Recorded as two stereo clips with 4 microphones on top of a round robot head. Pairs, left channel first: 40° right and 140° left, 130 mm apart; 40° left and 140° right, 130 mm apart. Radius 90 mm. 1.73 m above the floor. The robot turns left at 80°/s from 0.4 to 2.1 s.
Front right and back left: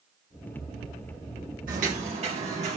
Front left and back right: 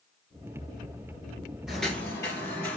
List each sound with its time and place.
1.7 s footsteps: 130° left, 3 m; by 2.8 s 110° left, 3 m